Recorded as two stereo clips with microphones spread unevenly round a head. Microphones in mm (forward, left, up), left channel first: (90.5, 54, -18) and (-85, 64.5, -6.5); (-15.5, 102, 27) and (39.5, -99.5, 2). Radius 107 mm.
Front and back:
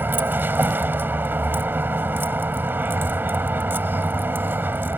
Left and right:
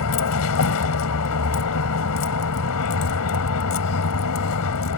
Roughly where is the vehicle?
Left.